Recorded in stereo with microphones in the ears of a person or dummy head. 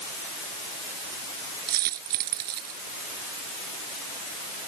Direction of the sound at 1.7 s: 50° right (ahead or behind).